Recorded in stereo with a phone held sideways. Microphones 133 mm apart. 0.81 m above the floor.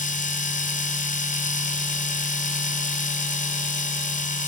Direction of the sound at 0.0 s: 75° left (ahead or behind).